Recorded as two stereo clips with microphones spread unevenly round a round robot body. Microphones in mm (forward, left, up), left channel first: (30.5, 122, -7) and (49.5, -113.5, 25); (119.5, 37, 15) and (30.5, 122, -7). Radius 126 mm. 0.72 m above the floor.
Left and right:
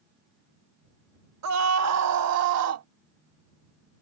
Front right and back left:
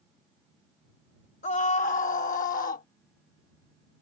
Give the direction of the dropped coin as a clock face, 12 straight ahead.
I don't hear a dropped coin.